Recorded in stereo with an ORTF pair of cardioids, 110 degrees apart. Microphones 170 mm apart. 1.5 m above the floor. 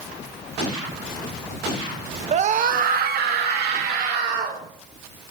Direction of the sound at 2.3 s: 45° right.